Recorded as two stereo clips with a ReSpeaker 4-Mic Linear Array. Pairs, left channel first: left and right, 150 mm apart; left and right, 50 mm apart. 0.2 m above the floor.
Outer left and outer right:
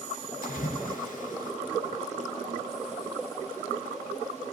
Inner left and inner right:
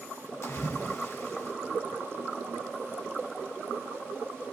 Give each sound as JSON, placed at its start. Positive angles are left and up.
{"t": 0.4, "sound": "a splash", "side_deg": 65, "distance_m": 2.5}